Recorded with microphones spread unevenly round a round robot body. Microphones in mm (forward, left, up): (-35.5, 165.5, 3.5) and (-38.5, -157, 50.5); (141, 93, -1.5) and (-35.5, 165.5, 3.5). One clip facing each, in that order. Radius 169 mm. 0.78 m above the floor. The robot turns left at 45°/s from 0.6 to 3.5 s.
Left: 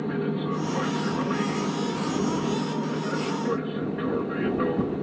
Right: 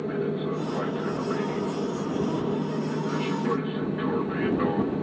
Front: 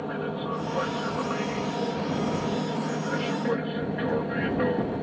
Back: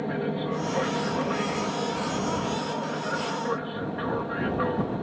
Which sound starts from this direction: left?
An aircraft, at 0.0 s.